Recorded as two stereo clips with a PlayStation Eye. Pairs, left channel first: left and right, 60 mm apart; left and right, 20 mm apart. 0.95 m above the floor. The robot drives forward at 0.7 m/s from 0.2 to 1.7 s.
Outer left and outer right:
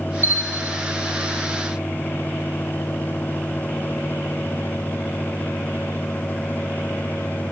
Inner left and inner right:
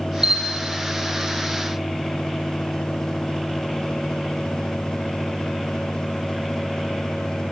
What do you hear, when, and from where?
0.2 s a bell: 40° right (ahead or behind), 1.0 m; by 0.8 s 30° right (ahead or behind), 1.2 m